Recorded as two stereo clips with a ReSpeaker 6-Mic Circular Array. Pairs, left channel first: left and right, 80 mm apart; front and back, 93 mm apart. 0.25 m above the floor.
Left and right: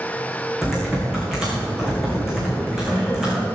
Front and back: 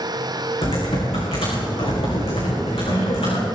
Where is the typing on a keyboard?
5° right, 5.5 m.